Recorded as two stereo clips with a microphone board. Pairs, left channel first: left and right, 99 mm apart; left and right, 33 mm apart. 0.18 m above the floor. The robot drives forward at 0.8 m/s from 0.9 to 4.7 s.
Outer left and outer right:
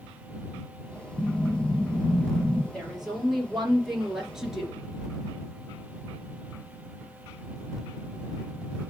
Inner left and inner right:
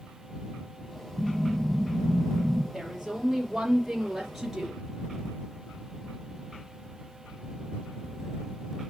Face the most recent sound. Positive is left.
turn(degrees=-5)  # may be behind; listen again after turning